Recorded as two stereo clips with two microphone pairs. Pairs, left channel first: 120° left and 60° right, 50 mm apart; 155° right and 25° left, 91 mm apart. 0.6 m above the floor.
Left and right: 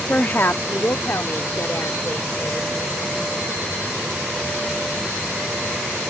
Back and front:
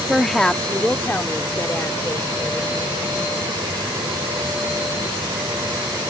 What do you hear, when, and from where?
0.1 s a woman speaking: 105° left; by 3.0 s 145° left